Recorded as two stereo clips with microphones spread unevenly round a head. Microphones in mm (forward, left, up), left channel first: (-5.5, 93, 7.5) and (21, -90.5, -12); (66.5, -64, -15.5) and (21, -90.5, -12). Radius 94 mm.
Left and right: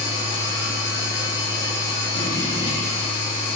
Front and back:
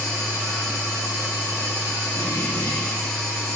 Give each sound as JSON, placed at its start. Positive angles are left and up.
{"t": 0.0, "sound": "a machine running", "azimuth_deg": 30, "distance_m": 3.0}